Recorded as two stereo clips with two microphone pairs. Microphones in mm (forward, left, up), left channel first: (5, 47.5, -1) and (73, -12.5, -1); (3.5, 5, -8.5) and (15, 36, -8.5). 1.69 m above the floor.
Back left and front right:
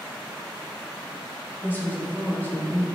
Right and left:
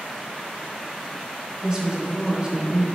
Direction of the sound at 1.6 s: 100° left.